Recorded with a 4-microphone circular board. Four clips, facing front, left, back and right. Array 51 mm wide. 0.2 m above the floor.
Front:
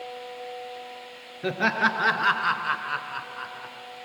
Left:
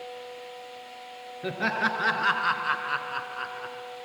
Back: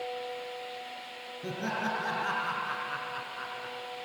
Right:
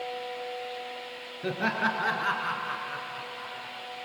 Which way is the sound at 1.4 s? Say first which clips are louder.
Left 1 dB, front 10 dB; 5° left.